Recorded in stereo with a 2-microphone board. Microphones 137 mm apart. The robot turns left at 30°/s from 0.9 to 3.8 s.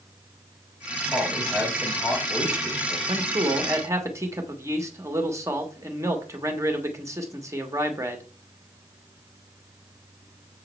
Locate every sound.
1.1 s a man speaking: 165° right, 3.5 m; by 3.0 s 140° left, 3.5 m
3.1 s a man speaking: 35° right (ahead or behind), 1.5 m; by 8.3 s 20° right (ahead or behind), 1.5 m